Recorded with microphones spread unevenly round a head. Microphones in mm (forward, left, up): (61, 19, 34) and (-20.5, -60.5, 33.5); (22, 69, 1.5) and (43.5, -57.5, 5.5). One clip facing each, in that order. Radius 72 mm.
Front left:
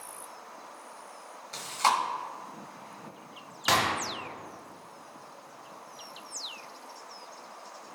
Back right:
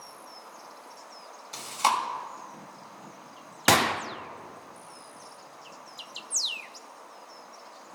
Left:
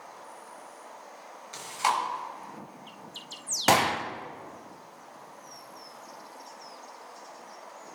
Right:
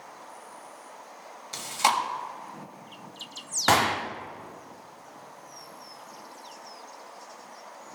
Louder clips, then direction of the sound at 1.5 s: Back right 1 dB, right 2 dB; 65° right.